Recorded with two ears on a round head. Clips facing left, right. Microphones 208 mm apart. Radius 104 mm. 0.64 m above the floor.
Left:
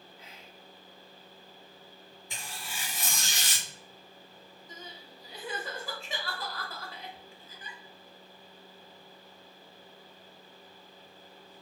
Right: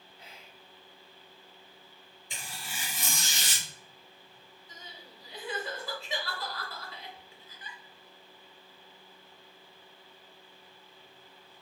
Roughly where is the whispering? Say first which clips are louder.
Left 2 dB; right.